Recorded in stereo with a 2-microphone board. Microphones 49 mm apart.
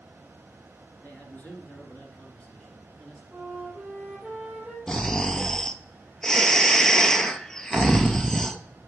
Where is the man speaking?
30° left (ahead or behind), 2 m; by 3.2 s 20° left (ahead or behind), 2 m.